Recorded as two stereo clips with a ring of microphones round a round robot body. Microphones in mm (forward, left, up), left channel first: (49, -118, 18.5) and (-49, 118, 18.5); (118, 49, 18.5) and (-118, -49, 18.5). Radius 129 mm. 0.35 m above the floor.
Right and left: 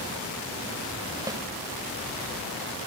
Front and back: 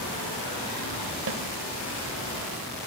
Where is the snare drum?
175° right, 1.8 m.